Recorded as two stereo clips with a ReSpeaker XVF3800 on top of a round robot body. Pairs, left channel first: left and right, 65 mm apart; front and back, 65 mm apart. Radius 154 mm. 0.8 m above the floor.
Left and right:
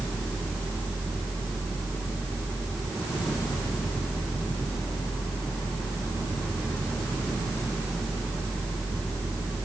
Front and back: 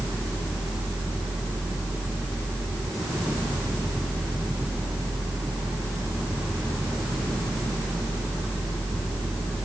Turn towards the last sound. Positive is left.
No sound to turn to.